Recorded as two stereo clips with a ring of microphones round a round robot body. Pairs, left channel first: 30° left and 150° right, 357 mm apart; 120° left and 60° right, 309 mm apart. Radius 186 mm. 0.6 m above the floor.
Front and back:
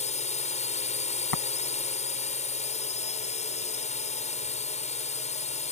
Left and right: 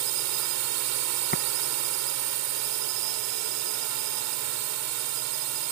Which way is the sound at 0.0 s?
40° right.